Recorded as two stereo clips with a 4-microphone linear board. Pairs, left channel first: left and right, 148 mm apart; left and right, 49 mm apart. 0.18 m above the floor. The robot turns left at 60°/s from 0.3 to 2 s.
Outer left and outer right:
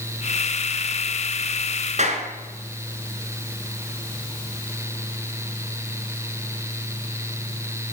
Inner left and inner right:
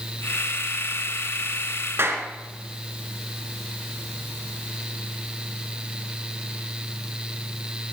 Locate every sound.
2.0 s a clap: 50° right (ahead or behind), 2.0 m